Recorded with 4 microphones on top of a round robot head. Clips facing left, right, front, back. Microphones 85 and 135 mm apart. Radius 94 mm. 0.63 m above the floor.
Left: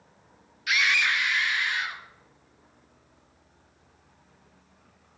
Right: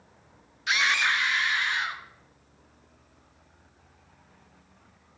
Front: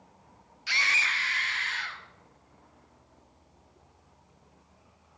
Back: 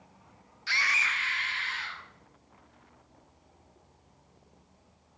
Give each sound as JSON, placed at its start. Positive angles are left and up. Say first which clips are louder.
{"t": 0.7, "sound": "a scream", "louder": "even, even", "azimuth_deg": -60, "distance_m": 1.1}